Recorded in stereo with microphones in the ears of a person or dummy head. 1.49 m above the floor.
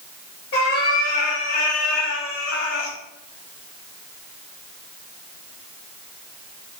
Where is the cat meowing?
40° left (ahead or behind), 1.2 m; by 2.9 s 45° left (ahead or behind), 2.5 m.